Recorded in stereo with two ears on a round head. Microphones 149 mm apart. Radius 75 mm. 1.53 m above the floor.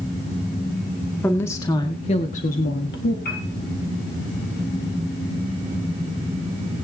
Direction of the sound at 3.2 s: 60° left (ahead or behind).